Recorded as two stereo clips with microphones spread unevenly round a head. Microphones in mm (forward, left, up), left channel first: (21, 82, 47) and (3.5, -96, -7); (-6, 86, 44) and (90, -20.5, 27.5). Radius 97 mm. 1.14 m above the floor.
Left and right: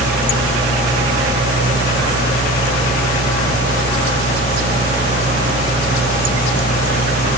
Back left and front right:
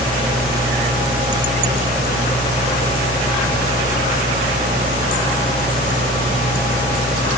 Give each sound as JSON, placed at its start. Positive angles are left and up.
{"t": 0.0, "sound": "a machine running", "azimuth_deg": 165, "distance_m": 1.5}